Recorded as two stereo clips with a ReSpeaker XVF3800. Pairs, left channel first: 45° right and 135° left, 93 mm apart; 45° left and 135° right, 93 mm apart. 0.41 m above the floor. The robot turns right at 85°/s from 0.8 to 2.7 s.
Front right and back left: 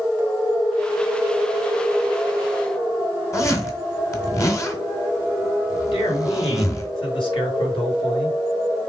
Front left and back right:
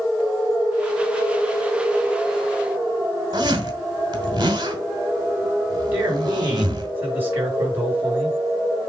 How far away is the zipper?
About 1.6 m.